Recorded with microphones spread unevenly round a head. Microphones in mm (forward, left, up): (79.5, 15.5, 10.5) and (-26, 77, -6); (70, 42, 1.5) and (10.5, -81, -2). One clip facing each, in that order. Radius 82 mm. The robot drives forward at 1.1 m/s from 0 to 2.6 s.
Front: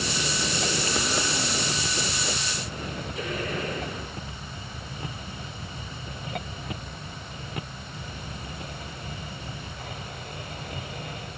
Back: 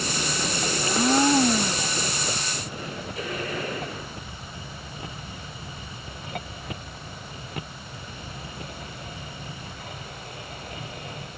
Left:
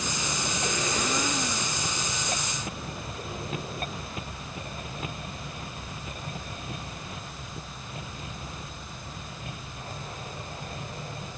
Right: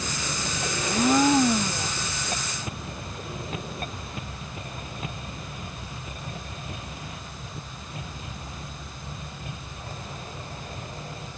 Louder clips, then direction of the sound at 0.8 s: Back 8 dB, right 12 dB; 160° right.